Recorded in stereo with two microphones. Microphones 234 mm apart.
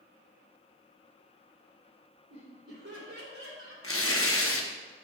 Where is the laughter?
80° right, 2.5 m.